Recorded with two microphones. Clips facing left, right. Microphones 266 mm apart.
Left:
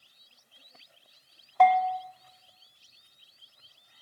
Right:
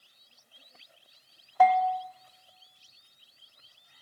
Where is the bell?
5° right (ahead or behind), 0.5 m.